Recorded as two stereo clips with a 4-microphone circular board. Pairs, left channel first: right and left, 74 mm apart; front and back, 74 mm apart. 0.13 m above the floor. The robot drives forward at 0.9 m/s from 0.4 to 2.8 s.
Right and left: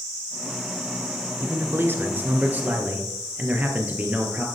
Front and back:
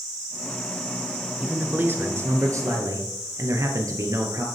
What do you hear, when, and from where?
1.4 s a man speaking: 115° left, 1.3 m; by 4.5 s 155° left, 2 m